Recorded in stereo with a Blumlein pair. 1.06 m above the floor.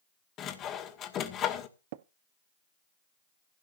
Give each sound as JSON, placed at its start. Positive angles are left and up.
{"t": 0.4, "sound": "sawing", "azimuth_deg": 30, "distance_m": 2.0}
{"t": 1.9, "sound": "tapping", "azimuth_deg": -50, "distance_m": 0.7}